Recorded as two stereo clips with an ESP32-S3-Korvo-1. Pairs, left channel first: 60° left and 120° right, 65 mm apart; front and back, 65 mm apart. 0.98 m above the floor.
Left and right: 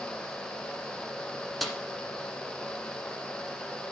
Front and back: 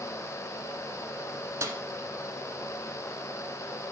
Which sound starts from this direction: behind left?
A snare drum, at 1.6 s.